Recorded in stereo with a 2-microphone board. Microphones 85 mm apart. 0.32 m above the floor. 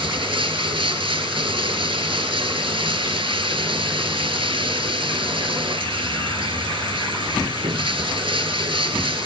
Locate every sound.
0.0 s running water: 80° right, 0.9 m